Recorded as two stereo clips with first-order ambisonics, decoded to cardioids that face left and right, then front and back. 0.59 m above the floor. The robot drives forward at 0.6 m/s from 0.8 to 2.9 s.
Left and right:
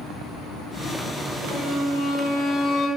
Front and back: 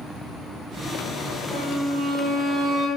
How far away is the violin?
About 2.5 m.